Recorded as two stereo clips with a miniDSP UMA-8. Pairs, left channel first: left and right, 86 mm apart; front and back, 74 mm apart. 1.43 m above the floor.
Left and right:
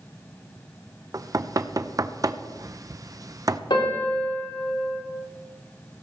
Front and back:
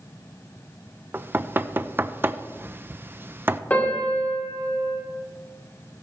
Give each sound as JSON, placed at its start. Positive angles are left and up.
{"t": 1.1, "sound": "knocking", "azimuth_deg": -125, "distance_m": 0.6}
{"t": 3.7, "sound": "a piano", "azimuth_deg": 70, "distance_m": 3.5}